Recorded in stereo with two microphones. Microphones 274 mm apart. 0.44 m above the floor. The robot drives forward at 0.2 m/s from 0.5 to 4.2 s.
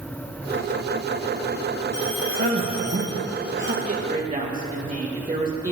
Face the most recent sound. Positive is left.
turn(degrees=-30)  # may be behind; listen again after turning